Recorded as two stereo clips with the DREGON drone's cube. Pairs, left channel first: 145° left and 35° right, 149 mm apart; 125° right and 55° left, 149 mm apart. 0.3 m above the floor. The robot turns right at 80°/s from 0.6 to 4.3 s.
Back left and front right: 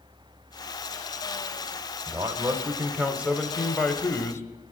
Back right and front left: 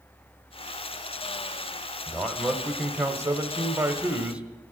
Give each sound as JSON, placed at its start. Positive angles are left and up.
{"t": 2.1, "sound": "a man speaking", "azimuth_deg": -60, "distance_m": 0.9}